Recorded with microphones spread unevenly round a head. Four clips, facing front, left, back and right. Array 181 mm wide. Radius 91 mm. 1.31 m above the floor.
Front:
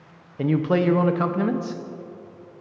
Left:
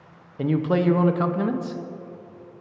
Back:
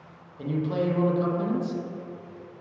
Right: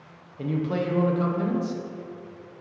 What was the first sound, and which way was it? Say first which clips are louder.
A man speaking: left 5 dB, front 6 dB; 30° left.